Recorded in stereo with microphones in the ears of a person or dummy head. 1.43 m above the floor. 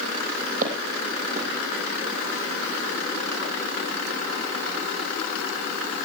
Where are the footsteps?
40° right (ahead or behind), 3 m.